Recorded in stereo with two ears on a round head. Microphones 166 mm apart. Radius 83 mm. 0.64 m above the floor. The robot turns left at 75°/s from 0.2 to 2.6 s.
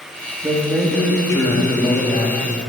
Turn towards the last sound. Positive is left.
turn(degrees=50)